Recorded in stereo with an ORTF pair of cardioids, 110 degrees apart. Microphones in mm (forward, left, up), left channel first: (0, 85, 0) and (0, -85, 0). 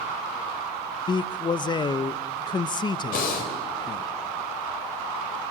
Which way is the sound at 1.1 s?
25° left.